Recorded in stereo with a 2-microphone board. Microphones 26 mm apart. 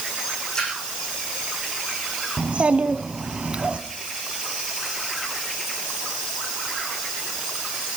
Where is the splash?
30° left (ahead or behind), 7 m.